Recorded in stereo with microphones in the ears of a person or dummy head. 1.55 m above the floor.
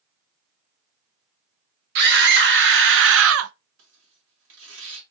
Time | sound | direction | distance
1.9 | a scream | 70° right (ahead or behind) | 1.5 m
3.8 | tearing paper | 80° right | 1.8 m